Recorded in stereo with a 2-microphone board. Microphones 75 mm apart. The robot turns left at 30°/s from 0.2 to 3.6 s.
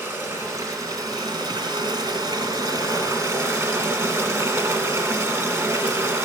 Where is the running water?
35° right, 1.1 m; by 6.3 s 135° right, 1.1 m.